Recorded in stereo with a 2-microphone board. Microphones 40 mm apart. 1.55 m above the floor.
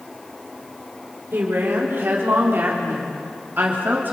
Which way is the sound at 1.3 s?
65° right (ahead or behind).